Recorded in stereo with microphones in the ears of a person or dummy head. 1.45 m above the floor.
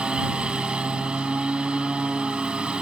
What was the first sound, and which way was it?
A lawn mower, 5° right (ahead or behind).